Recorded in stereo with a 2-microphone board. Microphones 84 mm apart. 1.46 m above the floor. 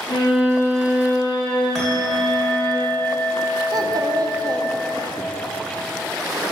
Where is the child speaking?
50° right (ahead or behind), 0.8 m.